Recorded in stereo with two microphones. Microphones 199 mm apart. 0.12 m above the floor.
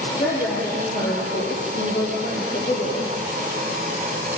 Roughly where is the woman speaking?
Left.